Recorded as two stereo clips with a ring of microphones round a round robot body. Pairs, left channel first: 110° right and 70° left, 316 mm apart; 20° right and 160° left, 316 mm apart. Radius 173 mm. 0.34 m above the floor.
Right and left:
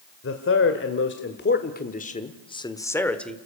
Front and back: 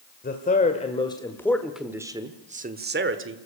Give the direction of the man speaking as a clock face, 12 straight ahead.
3 o'clock.